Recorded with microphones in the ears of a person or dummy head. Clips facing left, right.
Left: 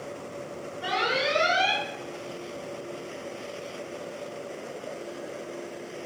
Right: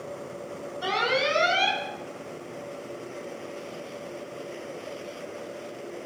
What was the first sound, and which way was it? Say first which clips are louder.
An alarm: right 2 dB; 70° right (ahead or behind).